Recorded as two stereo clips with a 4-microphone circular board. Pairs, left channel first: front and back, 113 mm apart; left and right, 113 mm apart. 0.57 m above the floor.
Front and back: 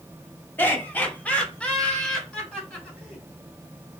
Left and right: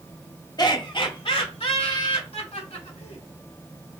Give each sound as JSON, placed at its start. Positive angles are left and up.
{"t": 0.6, "sound": "laughter", "azimuth_deg": 65, "distance_m": 1.1}